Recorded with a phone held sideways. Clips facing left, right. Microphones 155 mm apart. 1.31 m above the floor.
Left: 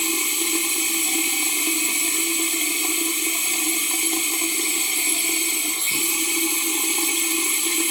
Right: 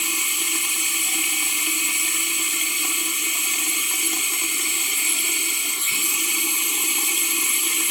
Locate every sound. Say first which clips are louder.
0.0 s running water: left 7 dB; 30° left (ahead or behind), 1.7 m